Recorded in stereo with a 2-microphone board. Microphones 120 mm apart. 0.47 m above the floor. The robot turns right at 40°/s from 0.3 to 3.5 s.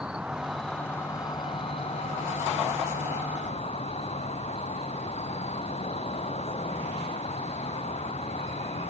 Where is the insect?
10° right; by 8.9 s 120° left.